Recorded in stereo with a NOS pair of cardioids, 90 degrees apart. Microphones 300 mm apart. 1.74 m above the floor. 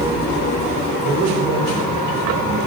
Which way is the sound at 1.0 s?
60° right.